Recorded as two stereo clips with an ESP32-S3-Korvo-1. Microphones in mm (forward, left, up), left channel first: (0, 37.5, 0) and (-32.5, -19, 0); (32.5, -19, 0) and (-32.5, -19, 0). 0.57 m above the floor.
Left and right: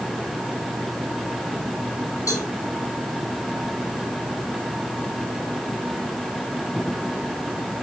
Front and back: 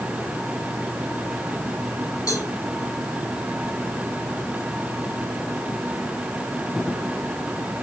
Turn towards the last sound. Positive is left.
turn(degrees=25)